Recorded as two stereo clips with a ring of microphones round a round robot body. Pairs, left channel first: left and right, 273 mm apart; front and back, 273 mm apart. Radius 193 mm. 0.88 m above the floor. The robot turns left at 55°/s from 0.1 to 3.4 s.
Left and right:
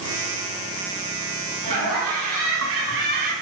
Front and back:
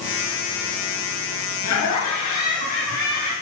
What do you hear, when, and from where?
1.6 s laughter: 15° left, 6 m; by 3.3 s 75° right, 6 m